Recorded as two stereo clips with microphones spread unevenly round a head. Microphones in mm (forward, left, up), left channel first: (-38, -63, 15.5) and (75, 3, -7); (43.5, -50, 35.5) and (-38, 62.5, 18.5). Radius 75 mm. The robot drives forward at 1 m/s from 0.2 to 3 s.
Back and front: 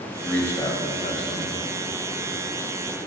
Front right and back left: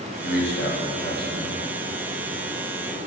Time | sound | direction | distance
0.2 | a man speaking | 65° right | 1.2 m